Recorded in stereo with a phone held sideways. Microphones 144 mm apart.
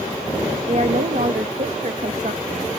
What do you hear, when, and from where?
0.7 s a woman speaking: 60° right (ahead or behind)